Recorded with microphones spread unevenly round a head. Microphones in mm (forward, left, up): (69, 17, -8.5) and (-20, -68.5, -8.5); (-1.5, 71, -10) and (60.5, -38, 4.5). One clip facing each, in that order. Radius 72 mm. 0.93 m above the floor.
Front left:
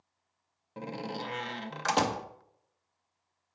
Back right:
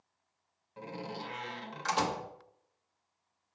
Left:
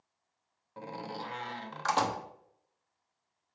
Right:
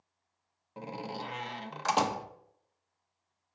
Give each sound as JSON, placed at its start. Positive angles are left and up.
{"t": 0.8, "sound": "a door slam", "azimuth_deg": 15, "distance_m": 0.7}